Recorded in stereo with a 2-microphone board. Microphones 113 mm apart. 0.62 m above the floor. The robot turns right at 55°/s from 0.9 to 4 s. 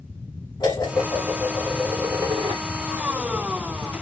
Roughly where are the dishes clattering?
Behind left.